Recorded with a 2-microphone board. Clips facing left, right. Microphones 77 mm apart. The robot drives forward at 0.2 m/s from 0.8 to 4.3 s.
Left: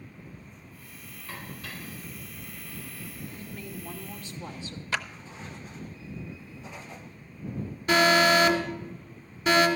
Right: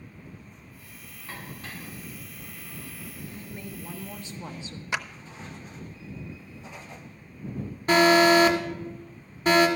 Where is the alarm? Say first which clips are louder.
Right 3 dB; 40° right (ahead or behind), 1.7 m.